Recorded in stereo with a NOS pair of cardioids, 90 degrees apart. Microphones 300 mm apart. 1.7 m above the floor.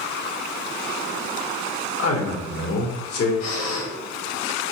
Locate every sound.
2.0 s a man speaking: 50° left, 2.5 m
3.4 s breathing: 55° left, 3.5 m